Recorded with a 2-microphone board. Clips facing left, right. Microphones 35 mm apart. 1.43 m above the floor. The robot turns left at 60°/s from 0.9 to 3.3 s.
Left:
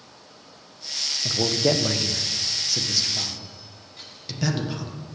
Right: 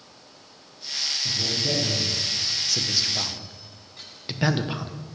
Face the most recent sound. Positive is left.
turn(degrees=-30)  # may be behind; listen again after turning